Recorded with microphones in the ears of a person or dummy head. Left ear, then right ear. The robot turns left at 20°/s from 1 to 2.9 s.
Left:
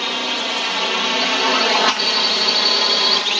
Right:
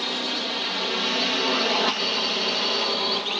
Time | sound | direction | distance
0.0 | a drone | 40° left (ahead or behind) | ?